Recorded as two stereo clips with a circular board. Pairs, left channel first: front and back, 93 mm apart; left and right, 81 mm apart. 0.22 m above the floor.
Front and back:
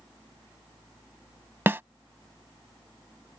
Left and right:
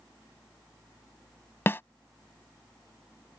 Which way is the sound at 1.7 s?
130° left.